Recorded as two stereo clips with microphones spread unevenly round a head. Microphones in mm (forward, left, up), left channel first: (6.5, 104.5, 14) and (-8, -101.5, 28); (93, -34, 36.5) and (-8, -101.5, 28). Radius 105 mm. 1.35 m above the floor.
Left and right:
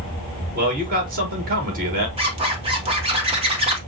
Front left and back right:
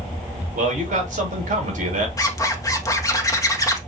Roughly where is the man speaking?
Behind right.